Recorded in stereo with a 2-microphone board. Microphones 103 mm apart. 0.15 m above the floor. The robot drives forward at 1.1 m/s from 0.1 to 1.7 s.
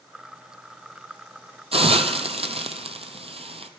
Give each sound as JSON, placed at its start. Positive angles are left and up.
{"t": 1.7, "sound": "a hiss", "side_deg": -70, "distance_m": 0.8}